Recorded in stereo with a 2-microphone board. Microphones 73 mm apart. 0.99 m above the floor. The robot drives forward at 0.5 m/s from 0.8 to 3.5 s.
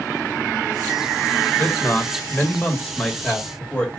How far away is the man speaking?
About 0.9 m.